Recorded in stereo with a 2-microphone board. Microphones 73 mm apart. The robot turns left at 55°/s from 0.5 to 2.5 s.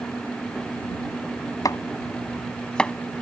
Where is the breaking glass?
No breaking glass in this recording.